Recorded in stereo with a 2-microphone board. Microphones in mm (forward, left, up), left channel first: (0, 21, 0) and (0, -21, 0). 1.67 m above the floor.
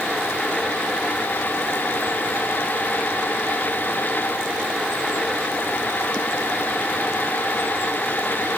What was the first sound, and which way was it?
Only background noise.